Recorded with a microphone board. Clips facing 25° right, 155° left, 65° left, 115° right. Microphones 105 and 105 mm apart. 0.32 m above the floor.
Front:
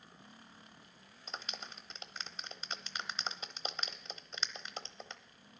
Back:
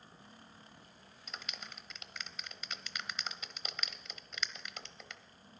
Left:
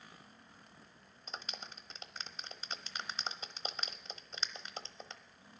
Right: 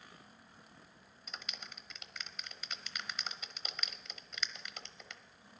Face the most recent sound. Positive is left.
turn(degrees=25)